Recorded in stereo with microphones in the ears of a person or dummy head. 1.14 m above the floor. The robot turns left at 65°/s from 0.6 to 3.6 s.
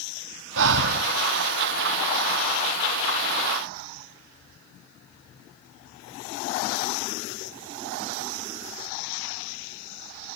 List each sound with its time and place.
0.6 s breathing: 105° right, 1.0 m; by 1.1 s 135° right, 1.0 m